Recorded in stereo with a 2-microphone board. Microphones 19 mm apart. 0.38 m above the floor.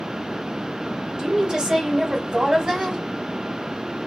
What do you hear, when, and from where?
1.2 s a woman speaking: 55° right (ahead or behind), 2.5 m